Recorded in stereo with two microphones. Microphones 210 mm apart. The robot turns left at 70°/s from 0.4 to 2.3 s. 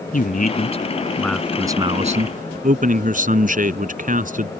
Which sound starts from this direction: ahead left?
A man speaking, at 0.1 s.